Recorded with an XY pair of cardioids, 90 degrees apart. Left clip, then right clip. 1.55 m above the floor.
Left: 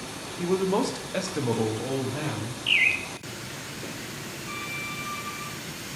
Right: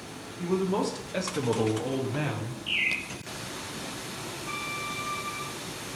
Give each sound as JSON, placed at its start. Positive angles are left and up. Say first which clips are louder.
{"t": 0.4, "sound": "a man speaking", "louder": "left 3 dB", "azimuth_deg": 45, "distance_m": 0.8}
{"t": 2.7, "sound": "a bird", "louder": "left 6 dB", "azimuth_deg": 60, "distance_m": 0.6}
{"t": 4.5, "sound": "a violin", "louder": "even", "azimuth_deg": -45, "distance_m": 1.0}